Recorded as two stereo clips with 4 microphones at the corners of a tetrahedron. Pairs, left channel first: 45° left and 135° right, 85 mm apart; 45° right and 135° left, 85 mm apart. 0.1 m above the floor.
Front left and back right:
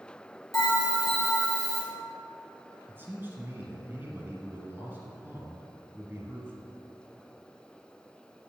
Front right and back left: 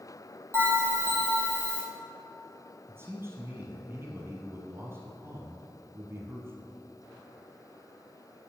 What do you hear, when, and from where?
0.5 s a bell: 80° left, 1.9 m
2.9 s a man speaking: 175° left, 1.6 m